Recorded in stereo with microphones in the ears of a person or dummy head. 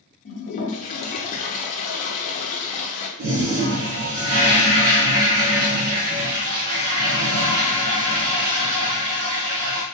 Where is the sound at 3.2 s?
45° right (ahead or behind), 1.1 m.